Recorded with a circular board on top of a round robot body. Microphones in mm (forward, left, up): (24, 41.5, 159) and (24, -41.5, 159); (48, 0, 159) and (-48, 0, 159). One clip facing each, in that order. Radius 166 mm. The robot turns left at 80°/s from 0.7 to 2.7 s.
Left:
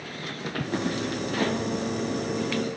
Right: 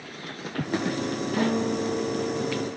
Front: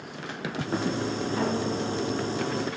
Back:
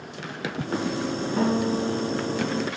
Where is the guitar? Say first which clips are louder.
Right 3 dB, back 6 dB; 135° right, 2.5 m; by 2.7 s 120° left, 2.5 m.